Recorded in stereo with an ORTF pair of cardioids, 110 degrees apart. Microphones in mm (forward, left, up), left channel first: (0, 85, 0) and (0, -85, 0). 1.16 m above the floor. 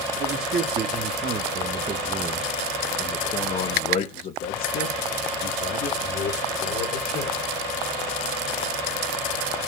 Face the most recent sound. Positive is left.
turn(degrees=80)